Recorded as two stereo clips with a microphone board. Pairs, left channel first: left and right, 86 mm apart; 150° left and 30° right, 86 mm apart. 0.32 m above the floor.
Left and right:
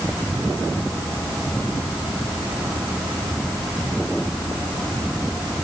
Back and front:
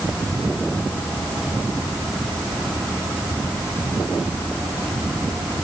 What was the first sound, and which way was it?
Only background noise.